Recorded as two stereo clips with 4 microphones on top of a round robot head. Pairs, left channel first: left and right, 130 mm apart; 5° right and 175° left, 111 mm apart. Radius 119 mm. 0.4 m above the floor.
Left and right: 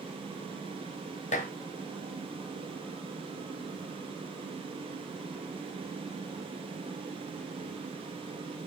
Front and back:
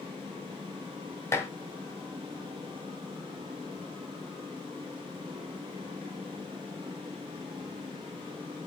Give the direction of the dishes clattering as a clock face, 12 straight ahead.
10 o'clock.